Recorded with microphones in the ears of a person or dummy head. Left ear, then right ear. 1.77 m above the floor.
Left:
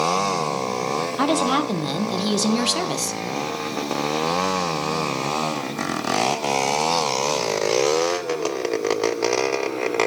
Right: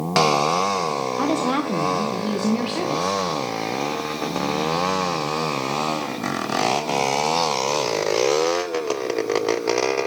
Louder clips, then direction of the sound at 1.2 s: Left 4 dB; 25° left (ahead or behind).